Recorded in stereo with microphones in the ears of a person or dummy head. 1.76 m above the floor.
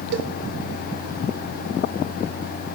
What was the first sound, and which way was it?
A cowbell, 60° right (ahead or behind).